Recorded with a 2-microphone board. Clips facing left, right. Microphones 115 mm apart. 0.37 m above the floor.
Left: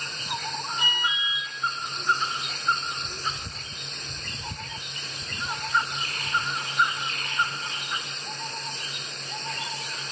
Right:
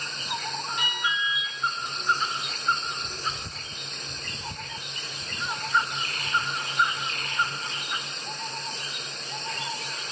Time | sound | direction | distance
0.8 | an alarm | 70° right (ahead or behind) | 6 m